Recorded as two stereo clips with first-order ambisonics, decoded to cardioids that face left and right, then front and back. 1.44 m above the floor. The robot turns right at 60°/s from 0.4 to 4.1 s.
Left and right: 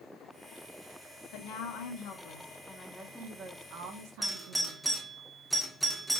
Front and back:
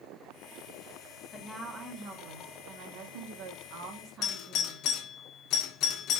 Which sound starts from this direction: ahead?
A doorbell, at 4.2 s.